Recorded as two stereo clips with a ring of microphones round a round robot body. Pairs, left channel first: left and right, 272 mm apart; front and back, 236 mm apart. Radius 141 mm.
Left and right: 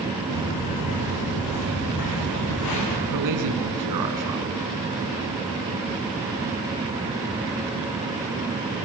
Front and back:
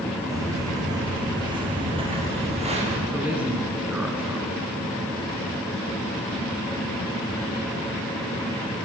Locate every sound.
0.3 s footsteps: 105° left, 7.5 m; by 3.0 s 115° left, 8 m
3.1 s a man speaking: 95° right, 3 m